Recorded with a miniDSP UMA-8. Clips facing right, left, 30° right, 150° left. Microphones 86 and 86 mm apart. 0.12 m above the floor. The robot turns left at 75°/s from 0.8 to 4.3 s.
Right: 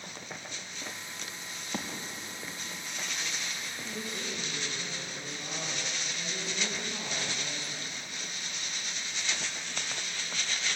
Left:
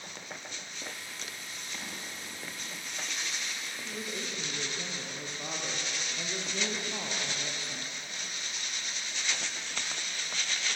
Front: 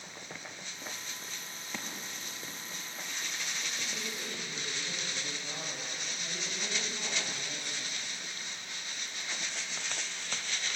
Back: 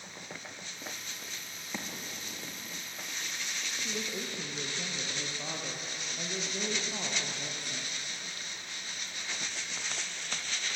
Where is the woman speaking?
175° right, 5 m; by 7.9 s 150° left, 5 m.